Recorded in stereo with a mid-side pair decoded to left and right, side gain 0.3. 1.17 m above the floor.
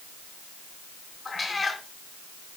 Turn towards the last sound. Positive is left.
turn(degrees=40)